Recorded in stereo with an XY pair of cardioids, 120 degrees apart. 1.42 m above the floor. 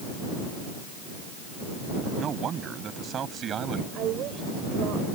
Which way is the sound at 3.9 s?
70° right.